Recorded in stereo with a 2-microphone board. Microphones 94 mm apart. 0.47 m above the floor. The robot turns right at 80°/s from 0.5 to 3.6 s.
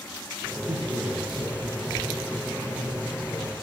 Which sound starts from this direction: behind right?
A man speaking, at 0.7 s.